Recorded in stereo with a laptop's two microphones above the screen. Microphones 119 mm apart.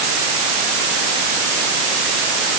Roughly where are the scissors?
I don't hear scissors.